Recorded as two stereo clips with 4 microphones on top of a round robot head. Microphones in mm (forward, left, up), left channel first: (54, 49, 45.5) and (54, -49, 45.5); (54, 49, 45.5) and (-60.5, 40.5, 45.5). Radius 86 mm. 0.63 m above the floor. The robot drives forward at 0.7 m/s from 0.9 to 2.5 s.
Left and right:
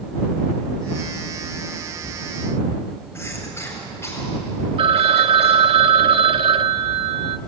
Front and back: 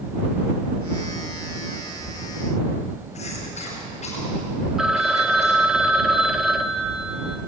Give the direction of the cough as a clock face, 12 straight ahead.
11 o'clock.